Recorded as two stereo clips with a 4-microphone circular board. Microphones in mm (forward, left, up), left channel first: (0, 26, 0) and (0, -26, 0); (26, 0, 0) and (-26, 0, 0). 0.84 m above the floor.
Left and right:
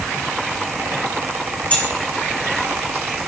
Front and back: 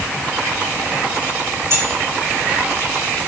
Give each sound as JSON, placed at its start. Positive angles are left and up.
{"t": 1.7, "sound": "keys jangling", "azimuth_deg": 150, "distance_m": 2.0}